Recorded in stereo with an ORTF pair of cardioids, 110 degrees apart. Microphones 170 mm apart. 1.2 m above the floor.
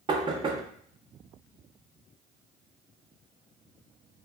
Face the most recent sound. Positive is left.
turn(degrees=-30)